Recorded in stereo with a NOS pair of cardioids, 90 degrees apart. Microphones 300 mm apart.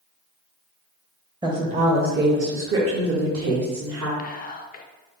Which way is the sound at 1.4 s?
15° right.